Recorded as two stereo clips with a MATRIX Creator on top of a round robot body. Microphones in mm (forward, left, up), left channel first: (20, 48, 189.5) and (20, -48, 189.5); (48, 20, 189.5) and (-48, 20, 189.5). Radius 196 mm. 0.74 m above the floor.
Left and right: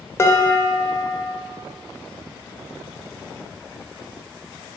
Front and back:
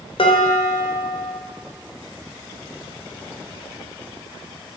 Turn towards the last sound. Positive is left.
turn(degrees=25)